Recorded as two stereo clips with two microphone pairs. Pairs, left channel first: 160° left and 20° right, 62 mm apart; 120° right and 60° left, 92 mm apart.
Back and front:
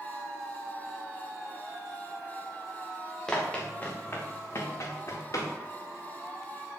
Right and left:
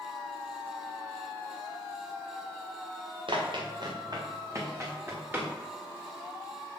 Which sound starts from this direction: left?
Running footsteps, at 3.3 s.